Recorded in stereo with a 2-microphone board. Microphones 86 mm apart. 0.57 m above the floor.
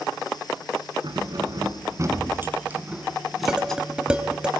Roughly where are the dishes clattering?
Centre.